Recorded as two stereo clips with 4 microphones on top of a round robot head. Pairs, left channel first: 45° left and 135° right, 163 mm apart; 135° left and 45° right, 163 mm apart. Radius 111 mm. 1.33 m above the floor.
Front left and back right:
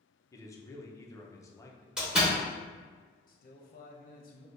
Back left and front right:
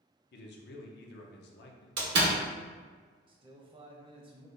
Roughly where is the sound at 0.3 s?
Behind left.